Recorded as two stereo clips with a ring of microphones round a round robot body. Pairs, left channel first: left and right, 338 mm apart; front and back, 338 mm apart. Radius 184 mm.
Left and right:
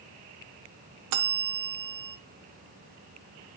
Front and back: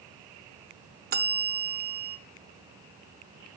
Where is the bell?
120° right, 0.7 m.